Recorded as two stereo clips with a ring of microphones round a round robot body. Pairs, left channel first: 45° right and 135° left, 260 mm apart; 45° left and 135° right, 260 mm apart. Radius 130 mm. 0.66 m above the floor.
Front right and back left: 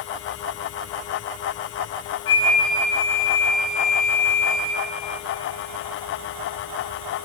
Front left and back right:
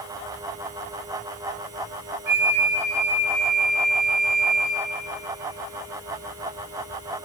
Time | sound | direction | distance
2.3 | a flute | 85° right | 1.7 m